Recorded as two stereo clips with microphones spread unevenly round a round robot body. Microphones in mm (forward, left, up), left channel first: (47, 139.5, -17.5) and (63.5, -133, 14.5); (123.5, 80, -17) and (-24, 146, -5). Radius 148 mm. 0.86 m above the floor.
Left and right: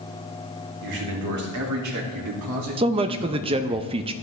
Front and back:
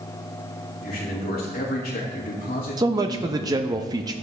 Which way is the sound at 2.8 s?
150° right.